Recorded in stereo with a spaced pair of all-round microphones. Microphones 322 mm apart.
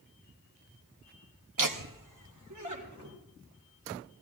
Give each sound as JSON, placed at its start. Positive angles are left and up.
{"t": 1.6, "sound": "laughter", "side_deg": -75, "distance_m": 0.8}